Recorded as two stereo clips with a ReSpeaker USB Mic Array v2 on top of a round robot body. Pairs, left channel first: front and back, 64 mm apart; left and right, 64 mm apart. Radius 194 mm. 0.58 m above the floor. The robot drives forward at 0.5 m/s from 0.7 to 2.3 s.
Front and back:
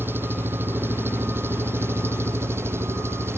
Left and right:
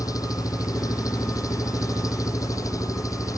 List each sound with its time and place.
0.0 s an engine running: 120° left; by 3.4 s 125° left